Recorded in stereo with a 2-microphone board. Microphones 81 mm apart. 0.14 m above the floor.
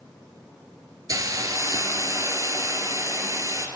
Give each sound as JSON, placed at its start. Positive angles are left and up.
{"t": 1.1, "sound": "a hiss", "side_deg": -45, "distance_m": 0.8}